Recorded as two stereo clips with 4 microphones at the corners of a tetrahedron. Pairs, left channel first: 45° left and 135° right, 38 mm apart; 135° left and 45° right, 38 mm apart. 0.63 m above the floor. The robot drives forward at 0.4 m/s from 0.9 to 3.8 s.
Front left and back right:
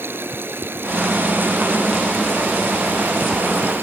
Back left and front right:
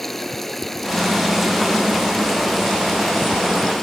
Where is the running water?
140° right; by 3.8 s 150° right.